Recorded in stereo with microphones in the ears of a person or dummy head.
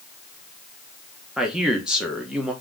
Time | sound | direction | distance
1.4 | a man speaking | centre (ahead or behind) | 0.9 m